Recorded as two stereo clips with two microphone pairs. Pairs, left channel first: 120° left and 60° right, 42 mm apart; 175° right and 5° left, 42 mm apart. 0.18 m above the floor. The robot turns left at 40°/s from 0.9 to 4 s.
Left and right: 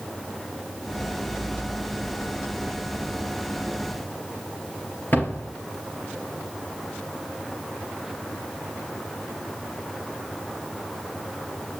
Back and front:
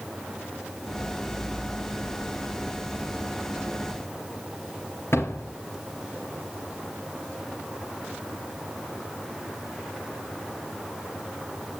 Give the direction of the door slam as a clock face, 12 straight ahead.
6 o'clock.